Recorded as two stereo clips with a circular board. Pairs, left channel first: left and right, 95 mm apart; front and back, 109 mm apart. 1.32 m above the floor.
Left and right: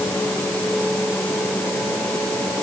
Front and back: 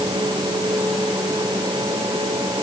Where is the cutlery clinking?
I don't hear cutlery clinking.